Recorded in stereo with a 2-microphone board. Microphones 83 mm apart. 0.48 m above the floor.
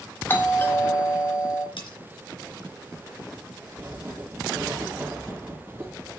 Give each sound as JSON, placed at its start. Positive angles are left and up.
{"t": 0.3, "sound": "a doorbell", "side_deg": 25, "distance_m": 1.4}
{"t": 1.8, "sound": "cutlery clinking", "side_deg": 80, "distance_m": 3.5}
{"t": 3.8, "sound": "writing", "side_deg": -25, "distance_m": 3.0}